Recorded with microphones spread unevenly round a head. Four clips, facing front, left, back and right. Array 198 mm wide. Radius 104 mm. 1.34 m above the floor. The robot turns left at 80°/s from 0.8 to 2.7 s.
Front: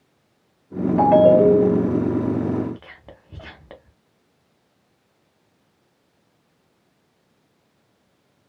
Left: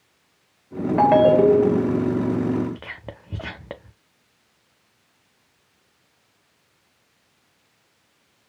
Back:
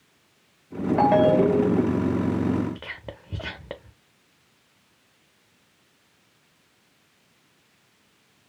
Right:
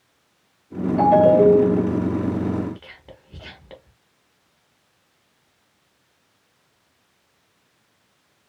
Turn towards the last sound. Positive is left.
turn(degrees=125)